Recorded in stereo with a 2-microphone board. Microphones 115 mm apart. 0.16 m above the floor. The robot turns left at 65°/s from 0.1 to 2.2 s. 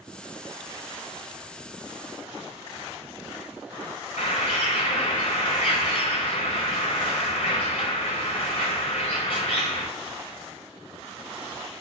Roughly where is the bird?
Left.